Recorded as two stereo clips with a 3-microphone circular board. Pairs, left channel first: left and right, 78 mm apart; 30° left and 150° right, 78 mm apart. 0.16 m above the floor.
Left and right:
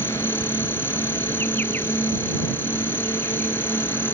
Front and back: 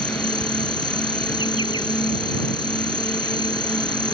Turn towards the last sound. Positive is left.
turn(degrees=30)